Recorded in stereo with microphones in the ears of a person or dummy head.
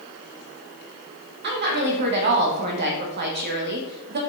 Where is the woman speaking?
50° right (ahead or behind), 0.9 m.